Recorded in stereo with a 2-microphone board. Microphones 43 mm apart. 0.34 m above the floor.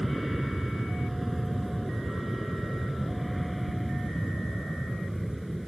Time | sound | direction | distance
0.0 | an aircraft | centre (ahead or behind) | ?